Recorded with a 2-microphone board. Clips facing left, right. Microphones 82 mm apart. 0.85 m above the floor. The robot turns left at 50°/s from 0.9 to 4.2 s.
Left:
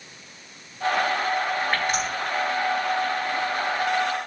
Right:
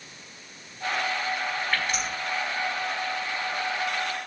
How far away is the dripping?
About 3 m.